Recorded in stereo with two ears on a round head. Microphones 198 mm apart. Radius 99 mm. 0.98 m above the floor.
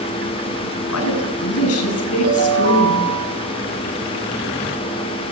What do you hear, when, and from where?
0.9 s a woman speaking: 75° left (ahead or behind), 8.5 m
2.2 s a ringtone: 75° right (ahead or behind), 8.5 m